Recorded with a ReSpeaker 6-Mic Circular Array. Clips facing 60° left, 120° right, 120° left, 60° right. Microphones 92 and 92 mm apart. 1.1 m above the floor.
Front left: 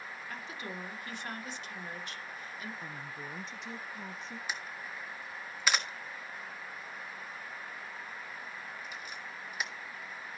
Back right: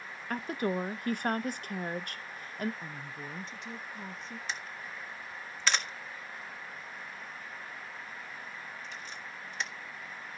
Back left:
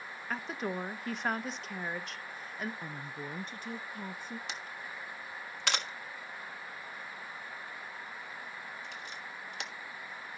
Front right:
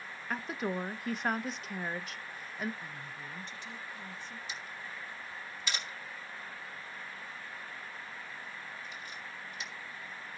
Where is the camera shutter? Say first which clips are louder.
Even, back left 1 dB; 145° left, 1.4 m.